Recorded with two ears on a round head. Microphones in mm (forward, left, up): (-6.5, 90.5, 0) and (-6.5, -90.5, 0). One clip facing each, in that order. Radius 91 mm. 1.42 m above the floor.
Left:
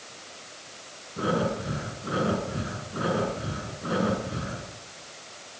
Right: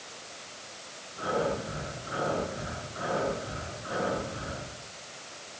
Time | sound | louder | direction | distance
1.2 | breathing | left 3 dB | 60° left (ahead or behind) | 8 m